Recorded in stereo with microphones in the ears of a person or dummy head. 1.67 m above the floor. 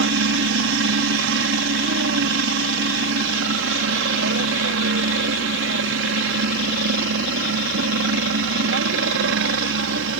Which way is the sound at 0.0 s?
70° right (ahead or behind).